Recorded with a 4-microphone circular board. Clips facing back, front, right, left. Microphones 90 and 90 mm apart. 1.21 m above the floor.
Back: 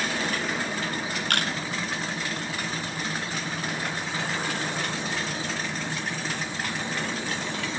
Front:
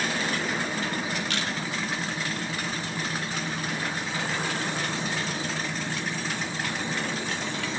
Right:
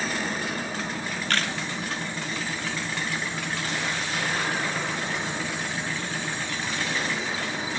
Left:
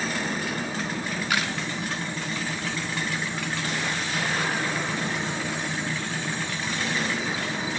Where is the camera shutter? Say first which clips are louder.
Back 3 dB, even; 170° left, 0.9 m.